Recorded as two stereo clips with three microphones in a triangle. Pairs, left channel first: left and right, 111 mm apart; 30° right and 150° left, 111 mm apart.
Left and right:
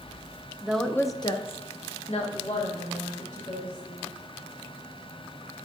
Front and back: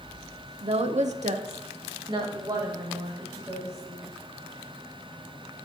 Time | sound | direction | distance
0.6 | a woman speaking | 175° right | 0.6 m